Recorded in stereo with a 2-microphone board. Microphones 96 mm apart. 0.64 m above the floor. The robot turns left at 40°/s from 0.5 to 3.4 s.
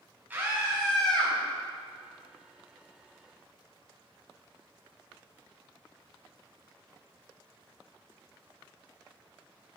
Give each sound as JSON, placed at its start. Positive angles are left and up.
{"t": 0.3, "sound": "a scream", "azimuth_deg": -165, "distance_m": 5.0}